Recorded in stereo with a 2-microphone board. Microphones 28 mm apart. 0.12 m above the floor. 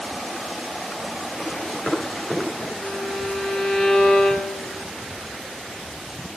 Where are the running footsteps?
30° left (ahead or behind), 7 m; by 2.7 s 35° left (ahead or behind), 8 m.